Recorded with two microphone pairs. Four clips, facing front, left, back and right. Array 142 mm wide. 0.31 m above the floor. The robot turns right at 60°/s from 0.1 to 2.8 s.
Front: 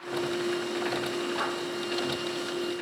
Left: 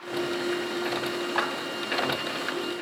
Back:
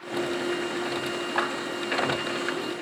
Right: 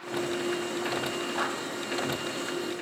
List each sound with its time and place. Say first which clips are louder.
1.4 s a clap: left 3 dB, back 7 dB; 135° left, 1.7 m; by 1.5 s 145° left, 1.7 m